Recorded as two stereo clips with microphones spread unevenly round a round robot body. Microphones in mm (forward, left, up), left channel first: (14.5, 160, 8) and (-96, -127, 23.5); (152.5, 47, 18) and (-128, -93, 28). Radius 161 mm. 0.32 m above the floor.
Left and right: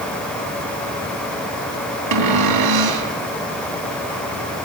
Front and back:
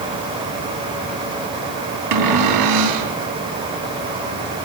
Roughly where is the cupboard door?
Behind right.